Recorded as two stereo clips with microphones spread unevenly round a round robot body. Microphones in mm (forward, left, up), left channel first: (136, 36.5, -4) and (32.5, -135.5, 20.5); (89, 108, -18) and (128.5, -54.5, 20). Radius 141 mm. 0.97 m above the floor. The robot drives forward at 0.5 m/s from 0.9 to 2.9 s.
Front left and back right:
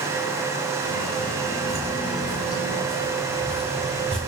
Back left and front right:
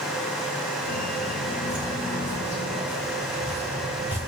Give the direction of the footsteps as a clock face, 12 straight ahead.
7 o'clock.